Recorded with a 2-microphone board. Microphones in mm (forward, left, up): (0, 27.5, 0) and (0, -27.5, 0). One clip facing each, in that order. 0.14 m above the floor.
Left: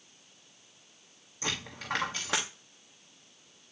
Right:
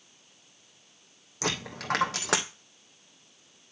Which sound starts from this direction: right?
A dropped coin, at 1.4 s.